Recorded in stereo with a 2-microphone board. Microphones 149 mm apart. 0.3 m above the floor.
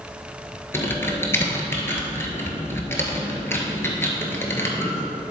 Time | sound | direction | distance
0.7 | typing on a keyboard | 15° left (ahead or behind) | 1.3 m